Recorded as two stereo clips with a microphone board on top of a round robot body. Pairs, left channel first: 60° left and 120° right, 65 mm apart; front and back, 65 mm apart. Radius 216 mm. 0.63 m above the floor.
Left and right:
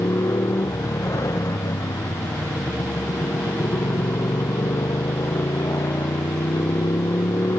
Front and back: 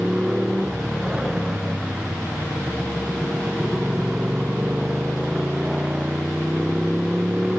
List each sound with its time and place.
0.0 s a motorcycle: 100° left